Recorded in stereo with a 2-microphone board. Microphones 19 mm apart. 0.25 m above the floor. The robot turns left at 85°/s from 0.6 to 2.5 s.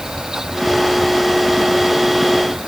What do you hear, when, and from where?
Only background noise.